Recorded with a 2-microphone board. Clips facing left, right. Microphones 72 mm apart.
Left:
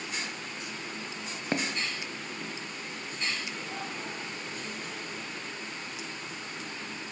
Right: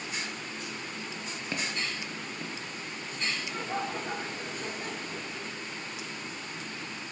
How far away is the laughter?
About 2.5 m.